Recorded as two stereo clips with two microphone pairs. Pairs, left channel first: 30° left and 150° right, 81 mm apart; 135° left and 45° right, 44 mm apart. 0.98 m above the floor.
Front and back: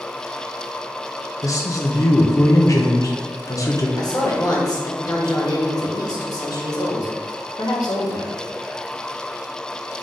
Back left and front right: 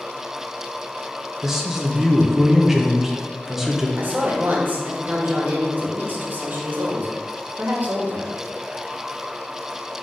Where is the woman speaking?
5° right, 1.5 m.